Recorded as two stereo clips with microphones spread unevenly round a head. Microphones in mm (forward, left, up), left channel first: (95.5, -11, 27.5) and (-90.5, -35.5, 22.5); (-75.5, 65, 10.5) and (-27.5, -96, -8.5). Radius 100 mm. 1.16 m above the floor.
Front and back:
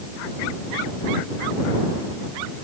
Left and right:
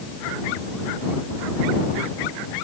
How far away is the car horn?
No car horn in this recording.